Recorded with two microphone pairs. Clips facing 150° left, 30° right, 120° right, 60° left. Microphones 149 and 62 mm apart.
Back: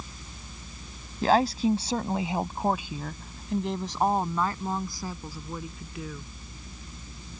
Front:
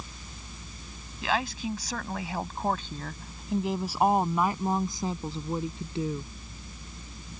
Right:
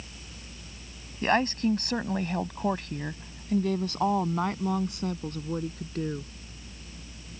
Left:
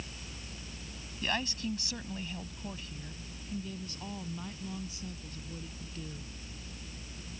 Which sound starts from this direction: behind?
A woman speaking, at 1.2 s.